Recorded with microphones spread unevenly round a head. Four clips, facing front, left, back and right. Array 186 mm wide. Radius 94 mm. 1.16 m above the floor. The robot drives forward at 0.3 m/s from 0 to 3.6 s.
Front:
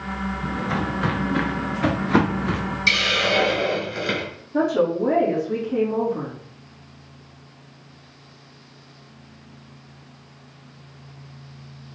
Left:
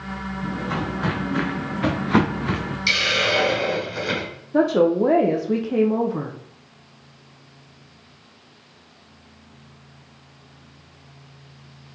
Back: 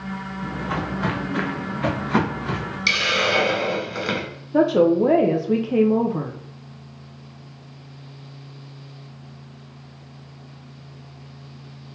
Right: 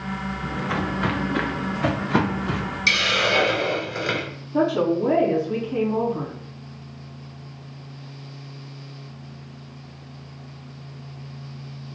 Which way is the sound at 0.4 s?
80° right.